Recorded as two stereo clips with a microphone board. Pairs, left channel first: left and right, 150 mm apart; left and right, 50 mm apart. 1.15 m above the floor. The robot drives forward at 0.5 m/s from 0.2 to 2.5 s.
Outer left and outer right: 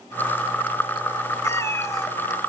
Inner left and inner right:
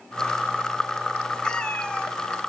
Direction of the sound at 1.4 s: 20° left (ahead or behind).